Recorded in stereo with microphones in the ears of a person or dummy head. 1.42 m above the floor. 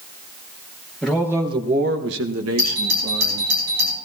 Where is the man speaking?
Centre (ahead or behind), 1.3 m; by 3.5 s 70° right (ahead or behind), 2.5 m.